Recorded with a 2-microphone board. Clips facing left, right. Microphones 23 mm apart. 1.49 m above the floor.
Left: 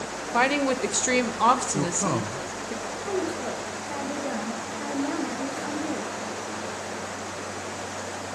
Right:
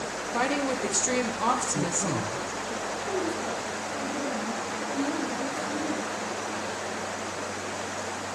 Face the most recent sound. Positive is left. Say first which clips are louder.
# left 2 dB
turn(degrees=40)  # may be behind; listen again after turning